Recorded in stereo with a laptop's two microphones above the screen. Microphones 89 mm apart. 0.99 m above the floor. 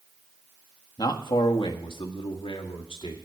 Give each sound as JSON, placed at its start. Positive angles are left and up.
{"t": 1.0, "sound": "a man speaking", "side_deg": 55, "distance_m": 1.3}